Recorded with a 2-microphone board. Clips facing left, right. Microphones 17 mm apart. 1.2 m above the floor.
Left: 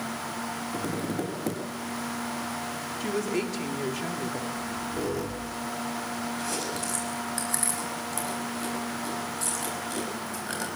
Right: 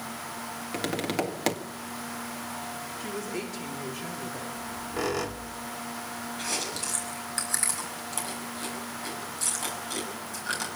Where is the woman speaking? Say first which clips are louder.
Left 7 dB; 20° left (ahead or behind), 2.5 m.